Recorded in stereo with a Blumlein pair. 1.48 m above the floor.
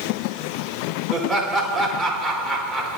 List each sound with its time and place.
1.1 s laughter: straight ahead, 5.5 m